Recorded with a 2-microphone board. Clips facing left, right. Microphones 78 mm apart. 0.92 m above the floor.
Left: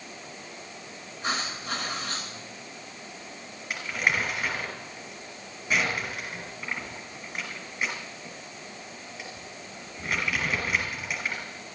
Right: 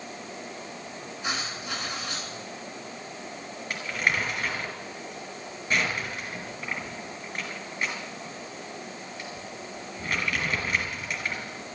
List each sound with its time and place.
1.2 s writing: 40° left (ahead or behind), 9.5 m
3.7 s crumpling: 10° left (ahead or behind), 5.5 m